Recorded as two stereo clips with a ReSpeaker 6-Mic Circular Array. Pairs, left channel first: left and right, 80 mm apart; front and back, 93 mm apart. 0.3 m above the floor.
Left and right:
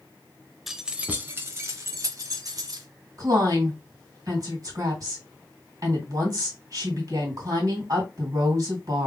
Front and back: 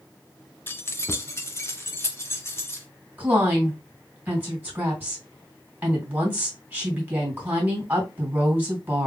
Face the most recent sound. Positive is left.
turn(degrees=-115)